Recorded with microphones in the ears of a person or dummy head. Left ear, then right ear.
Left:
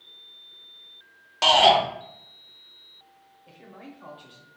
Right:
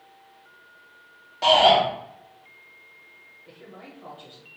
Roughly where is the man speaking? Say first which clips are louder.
Even; left.